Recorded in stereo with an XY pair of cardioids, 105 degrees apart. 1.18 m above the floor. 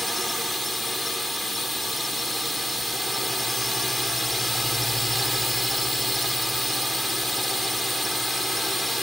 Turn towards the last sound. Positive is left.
turn(degrees=5)